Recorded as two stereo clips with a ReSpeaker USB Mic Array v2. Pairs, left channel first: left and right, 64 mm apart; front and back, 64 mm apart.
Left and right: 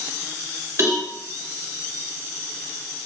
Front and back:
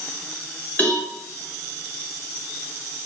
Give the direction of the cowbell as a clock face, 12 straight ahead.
2 o'clock.